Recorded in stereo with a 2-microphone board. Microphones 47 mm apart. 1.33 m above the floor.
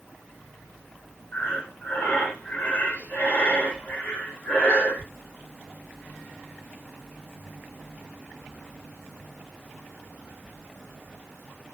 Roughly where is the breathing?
Left.